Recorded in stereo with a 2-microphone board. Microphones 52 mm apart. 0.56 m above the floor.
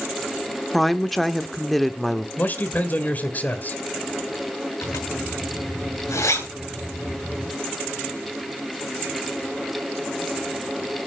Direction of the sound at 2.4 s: 35° left (ahead or behind).